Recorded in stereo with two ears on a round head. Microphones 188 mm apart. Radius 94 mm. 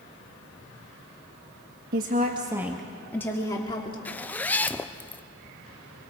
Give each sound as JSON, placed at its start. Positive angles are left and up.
{"t": 1.9, "sound": "a woman speaking", "side_deg": -45, "distance_m": 1.2}
{"t": 4.0, "sound": "a zipper", "side_deg": 5, "distance_m": 0.5}